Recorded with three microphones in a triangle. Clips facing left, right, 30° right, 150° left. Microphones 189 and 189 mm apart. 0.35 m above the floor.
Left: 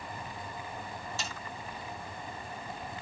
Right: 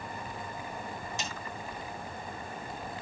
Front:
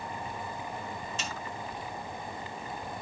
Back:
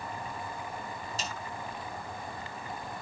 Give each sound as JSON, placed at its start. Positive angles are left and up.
{"t": 1.2, "sound": "a snare drum", "azimuth_deg": -160, "distance_m": 3.0}